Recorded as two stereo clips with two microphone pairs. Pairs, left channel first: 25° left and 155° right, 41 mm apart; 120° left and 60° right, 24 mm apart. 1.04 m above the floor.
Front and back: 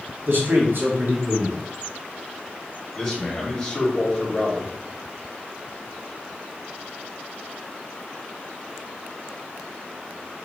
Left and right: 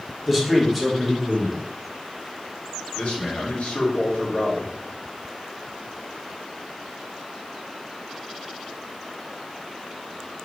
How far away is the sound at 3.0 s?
About 2 m.